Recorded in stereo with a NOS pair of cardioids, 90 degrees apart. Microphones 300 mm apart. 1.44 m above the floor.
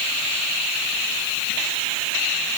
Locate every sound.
Only background noise.